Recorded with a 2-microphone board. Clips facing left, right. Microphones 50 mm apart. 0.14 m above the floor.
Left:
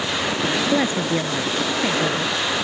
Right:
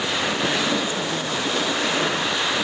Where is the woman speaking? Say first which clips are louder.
Left 4 dB; 40° left (ahead or behind).